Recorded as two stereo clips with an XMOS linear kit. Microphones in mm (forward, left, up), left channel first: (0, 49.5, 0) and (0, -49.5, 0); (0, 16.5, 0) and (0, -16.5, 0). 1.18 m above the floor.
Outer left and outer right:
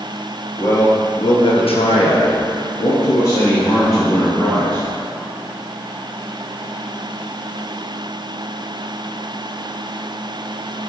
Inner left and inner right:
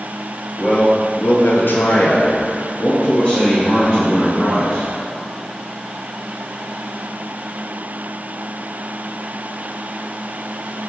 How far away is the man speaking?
About 1.7 m.